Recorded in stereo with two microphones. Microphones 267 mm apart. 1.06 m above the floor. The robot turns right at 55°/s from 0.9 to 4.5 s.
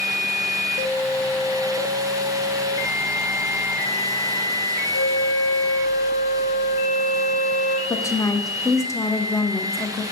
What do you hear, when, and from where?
4.9 s a flute: 80° left, 2 m
7.9 s a woman speaking: 10° left (ahead or behind), 0.6 m